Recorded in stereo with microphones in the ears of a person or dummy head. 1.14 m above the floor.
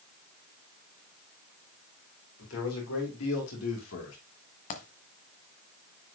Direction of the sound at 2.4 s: 75° left (ahead or behind).